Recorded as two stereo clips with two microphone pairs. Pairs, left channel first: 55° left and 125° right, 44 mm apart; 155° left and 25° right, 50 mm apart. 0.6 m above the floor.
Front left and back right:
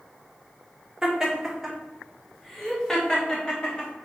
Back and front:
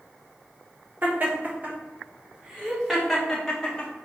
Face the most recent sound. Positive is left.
turn(degrees=95)